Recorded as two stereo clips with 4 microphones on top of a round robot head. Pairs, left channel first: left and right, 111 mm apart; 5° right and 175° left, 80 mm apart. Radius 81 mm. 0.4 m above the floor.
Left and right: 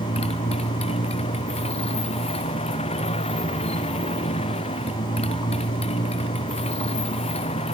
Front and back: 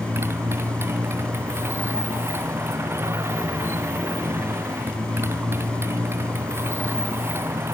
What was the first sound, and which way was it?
A motorcycle, 120° left.